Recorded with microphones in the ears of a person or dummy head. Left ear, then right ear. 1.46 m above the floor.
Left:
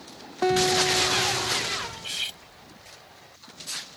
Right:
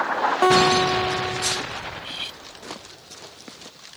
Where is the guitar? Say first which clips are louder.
Right 4 dB; 35° right (ahead or behind).